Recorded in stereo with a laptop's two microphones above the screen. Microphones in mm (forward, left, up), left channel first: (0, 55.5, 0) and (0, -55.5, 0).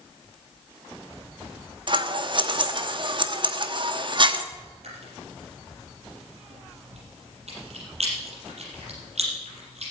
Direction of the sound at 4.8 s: 80° right.